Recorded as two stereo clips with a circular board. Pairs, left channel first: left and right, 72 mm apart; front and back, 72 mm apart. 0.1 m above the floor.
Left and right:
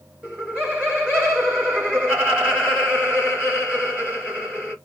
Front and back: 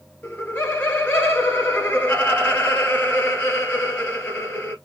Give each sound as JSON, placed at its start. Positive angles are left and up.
{"t": 0.2, "sound": "laughter", "azimuth_deg": -35, "distance_m": 1.2}